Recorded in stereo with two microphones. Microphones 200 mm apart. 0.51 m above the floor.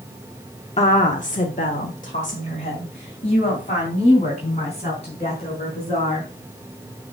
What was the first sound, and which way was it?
A woman speaking, 35° left (ahead or behind).